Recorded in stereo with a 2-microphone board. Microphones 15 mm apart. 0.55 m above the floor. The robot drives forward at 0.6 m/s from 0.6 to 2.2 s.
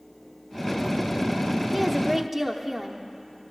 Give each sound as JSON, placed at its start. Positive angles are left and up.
{"t": 1.7, "sound": "a woman speaking", "side_deg": -15, "distance_m": 0.8}